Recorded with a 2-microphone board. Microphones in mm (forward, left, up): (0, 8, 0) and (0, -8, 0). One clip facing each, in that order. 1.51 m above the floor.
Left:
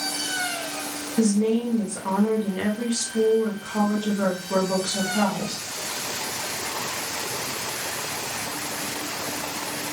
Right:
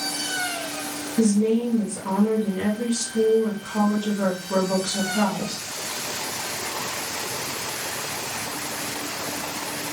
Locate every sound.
1.2 s a woman speaking: 65° left (ahead or behind), 0.9 m